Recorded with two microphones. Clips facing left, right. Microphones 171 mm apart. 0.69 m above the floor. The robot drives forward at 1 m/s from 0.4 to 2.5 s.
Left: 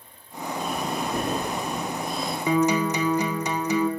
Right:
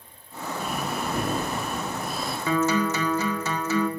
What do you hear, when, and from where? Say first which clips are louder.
0.6 s breathing: left 1 dB; 5° right (ahead or behind), 1.2 m
2.5 s a guitar: left 2 dB; 15° left (ahead or behind), 1.7 m